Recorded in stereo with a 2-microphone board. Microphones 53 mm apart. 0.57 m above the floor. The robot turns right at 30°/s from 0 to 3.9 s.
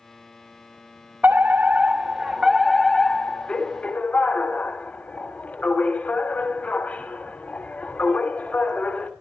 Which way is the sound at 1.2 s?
40° right.